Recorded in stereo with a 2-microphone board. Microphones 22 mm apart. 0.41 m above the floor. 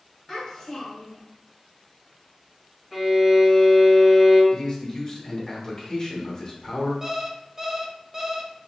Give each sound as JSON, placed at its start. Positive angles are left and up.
{"t": 0.3, "sound": "a child speaking", "side_deg": 10, "distance_m": 1.5}
{"t": 2.9, "sound": "a violin", "side_deg": -15, "distance_m": 1.9}
{"t": 4.5, "sound": "a man speaking", "side_deg": 30, "distance_m": 1.1}
{"t": 7.0, "sound": "an alarm clock", "side_deg": -20, "distance_m": 0.5}